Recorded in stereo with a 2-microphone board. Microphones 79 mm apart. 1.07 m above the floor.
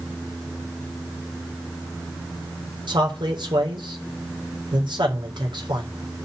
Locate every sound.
2.9 s a man speaking: 80° right, 4 m